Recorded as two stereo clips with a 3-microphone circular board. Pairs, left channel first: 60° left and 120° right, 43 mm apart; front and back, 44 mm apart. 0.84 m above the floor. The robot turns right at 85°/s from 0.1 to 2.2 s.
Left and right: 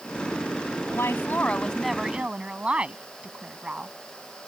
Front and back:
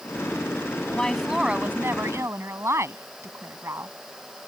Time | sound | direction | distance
0.9 | a woman speaking | 65° left | ?